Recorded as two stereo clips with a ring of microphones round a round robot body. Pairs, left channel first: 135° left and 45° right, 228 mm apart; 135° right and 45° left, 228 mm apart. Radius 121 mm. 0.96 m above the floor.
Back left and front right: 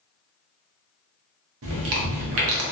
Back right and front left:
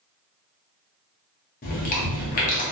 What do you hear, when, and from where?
1.6 s chewing: 80° right, 0.6 m